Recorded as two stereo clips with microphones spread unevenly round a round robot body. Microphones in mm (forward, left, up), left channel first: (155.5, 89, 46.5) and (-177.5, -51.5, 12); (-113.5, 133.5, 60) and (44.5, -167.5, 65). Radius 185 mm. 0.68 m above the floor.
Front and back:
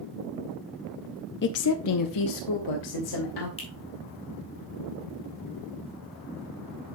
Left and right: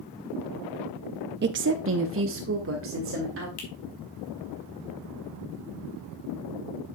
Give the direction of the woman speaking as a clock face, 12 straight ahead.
1 o'clock.